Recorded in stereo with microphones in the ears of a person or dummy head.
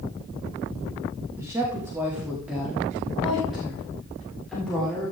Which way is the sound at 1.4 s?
20° right (ahead or behind).